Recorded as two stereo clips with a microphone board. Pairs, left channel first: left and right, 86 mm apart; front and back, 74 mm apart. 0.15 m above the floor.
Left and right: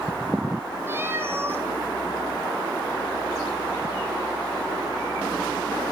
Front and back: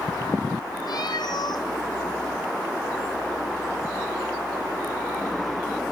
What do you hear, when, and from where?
0.9 s a cat meowing: 25° right, 1.8 m